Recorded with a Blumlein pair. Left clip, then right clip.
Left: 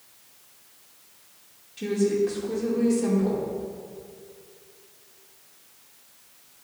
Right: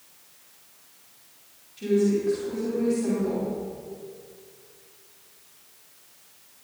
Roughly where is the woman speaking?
Ahead.